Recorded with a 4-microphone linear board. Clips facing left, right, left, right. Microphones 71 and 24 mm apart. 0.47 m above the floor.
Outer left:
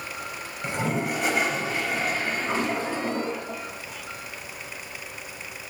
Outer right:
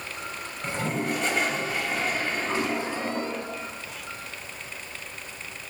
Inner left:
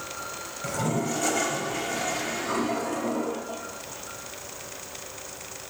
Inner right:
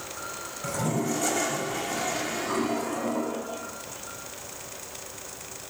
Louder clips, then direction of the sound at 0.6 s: Outer left 1 dB, even; 10° left (ahead or behind).